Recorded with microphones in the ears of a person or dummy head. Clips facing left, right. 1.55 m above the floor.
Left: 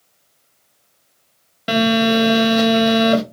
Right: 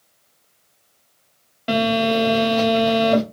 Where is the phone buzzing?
10° left (ahead or behind), 0.6 m.